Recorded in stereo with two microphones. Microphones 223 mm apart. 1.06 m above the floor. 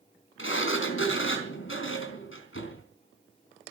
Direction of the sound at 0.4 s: 65° left (ahead or behind).